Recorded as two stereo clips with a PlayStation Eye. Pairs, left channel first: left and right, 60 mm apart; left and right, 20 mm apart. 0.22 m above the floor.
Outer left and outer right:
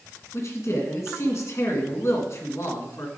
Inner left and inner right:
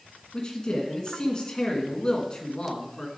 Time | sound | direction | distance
0.3 | a man speaking | 55° left (ahead or behind) | 1.8 m